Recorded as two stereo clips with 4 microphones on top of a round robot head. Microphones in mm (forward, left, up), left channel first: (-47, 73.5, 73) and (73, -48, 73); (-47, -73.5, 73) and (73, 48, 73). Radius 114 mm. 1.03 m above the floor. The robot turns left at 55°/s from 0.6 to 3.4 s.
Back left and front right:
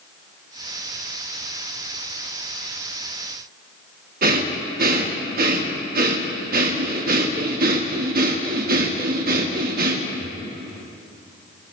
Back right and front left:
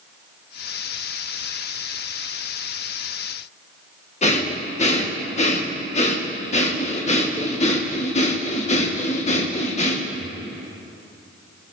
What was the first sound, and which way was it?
Breathing, 85° right.